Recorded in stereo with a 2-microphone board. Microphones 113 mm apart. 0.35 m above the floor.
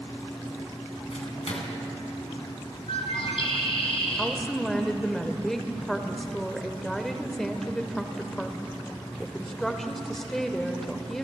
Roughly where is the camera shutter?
I don't hear a camera shutter.